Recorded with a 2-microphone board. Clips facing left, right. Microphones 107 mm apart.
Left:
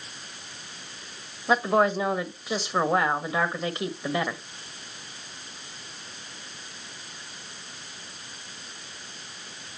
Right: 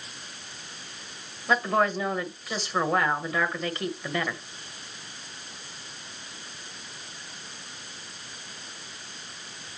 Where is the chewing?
No chewing in this recording.